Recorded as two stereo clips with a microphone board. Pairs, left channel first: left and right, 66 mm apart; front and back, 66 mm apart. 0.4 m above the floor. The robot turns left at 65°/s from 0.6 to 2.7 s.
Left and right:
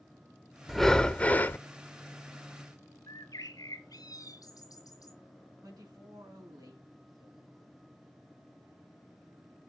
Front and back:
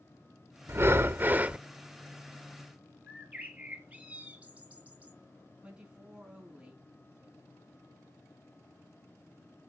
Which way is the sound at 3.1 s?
110° left.